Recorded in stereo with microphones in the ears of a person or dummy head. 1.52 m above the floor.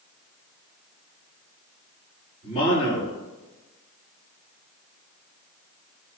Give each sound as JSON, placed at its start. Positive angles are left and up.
{"t": 2.4, "sound": "a man speaking", "side_deg": 30, "distance_m": 4.5}